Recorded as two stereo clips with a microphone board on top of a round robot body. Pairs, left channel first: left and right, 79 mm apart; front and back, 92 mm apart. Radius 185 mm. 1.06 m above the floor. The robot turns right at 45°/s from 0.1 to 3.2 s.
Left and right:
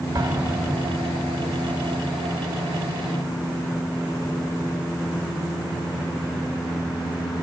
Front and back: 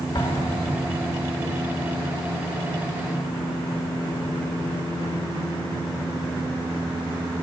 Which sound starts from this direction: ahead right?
An explosion, at 0.1 s.